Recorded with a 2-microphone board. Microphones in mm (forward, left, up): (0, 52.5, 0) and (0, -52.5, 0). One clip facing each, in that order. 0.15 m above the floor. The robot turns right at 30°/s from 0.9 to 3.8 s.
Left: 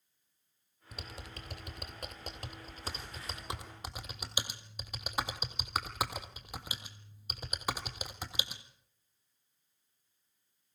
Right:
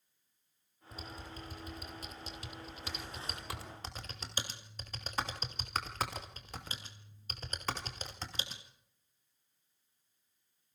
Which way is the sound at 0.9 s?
75° left (ahead or behind).